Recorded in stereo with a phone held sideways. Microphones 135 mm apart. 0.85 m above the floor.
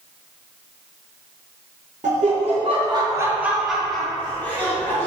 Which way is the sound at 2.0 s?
55° right (ahead or behind).